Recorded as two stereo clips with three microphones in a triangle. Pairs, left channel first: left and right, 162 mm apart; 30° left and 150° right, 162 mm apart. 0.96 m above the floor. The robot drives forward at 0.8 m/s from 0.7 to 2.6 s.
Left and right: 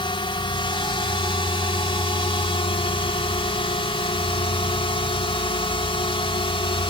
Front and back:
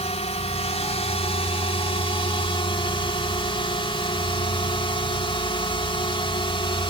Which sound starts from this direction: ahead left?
A drone, at 0.0 s.